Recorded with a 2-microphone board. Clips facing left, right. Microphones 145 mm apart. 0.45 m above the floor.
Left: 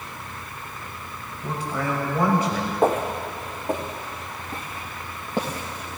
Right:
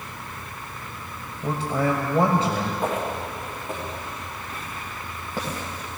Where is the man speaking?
30° right (ahead or behind), 1.7 m.